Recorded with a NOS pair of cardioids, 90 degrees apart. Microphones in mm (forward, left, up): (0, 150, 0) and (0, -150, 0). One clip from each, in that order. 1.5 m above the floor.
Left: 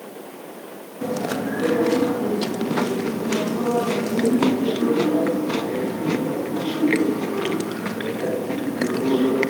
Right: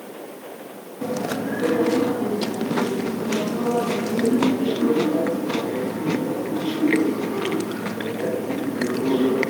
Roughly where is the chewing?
Ahead.